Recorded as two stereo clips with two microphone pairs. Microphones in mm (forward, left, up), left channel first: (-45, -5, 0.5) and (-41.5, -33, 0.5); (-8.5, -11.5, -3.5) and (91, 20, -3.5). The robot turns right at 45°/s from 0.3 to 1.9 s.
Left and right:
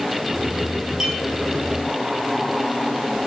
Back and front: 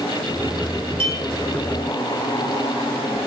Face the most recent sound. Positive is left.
turn(degrees=25)